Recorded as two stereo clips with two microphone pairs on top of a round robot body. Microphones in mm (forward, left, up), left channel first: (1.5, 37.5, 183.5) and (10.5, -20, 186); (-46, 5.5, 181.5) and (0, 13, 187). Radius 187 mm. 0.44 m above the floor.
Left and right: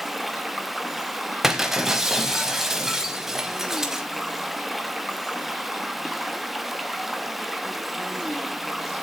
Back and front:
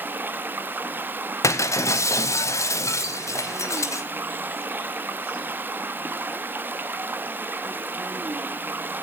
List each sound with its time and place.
0.0 s running water: 10° left, 1.2 m
1.4 s breaking glass: 165° right, 0.8 m